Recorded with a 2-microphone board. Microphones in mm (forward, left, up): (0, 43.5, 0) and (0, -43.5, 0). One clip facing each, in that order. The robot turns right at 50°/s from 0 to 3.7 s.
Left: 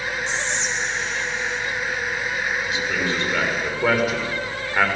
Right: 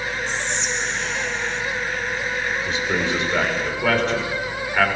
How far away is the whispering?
About 2.5 m.